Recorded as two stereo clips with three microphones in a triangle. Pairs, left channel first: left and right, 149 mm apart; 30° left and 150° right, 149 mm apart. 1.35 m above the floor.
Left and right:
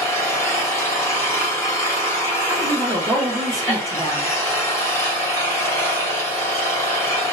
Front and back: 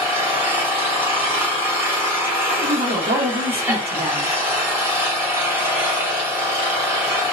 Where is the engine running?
150° left, 1.0 m.